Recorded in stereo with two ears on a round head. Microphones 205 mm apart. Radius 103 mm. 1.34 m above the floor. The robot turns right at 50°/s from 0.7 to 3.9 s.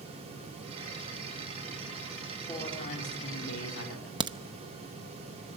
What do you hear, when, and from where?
2.5 s a man speaking: 15° left, 3.5 m; by 4.1 s 85° left, 3.5 m
4.2 s a crack: 20° right (ahead or behind), 0.6 m